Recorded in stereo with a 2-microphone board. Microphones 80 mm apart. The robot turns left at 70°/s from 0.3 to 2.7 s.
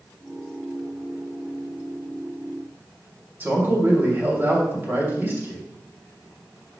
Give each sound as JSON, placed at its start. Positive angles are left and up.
{"t": 3.4, "sound": "a man speaking", "side_deg": -30, "distance_m": 2.5}